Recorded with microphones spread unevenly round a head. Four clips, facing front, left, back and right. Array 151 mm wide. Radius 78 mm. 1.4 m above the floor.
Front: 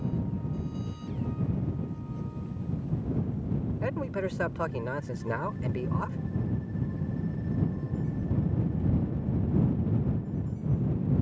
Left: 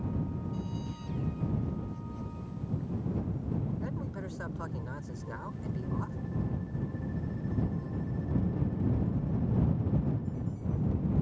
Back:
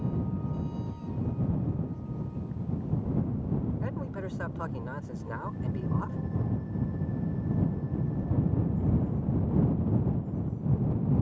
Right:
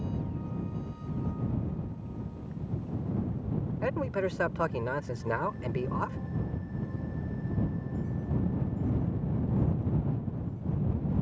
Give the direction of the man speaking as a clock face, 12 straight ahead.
2 o'clock.